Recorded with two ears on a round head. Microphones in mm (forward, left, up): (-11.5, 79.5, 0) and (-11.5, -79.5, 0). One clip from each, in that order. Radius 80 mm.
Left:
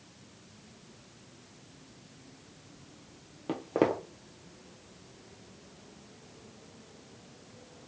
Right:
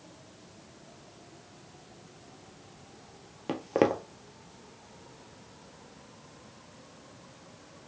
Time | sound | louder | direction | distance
3.5 | footsteps | right 2 dB | 25° right (ahead or behind) | 0.5 m